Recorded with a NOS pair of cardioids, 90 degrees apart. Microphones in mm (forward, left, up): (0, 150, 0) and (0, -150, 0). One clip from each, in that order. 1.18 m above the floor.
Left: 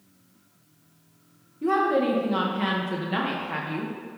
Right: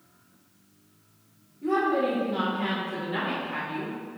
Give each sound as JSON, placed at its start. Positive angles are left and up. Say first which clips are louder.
{"t": 1.6, "sound": "a woman speaking", "louder": "left 2 dB", "azimuth_deg": 60, "distance_m": 1.2}